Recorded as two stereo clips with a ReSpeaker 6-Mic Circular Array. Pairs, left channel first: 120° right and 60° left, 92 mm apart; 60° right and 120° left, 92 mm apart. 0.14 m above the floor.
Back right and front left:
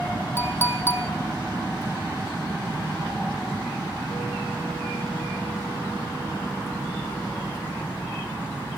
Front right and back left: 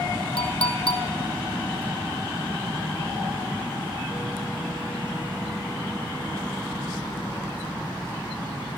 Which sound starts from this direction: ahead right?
A clink, at 0.4 s.